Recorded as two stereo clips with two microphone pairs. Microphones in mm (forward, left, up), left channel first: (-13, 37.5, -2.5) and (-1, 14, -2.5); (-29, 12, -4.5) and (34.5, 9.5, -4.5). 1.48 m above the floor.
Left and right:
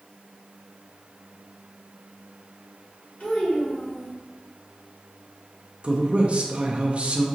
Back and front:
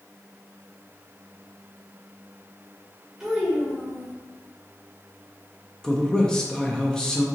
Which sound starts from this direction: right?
A man speaking, at 5.8 s.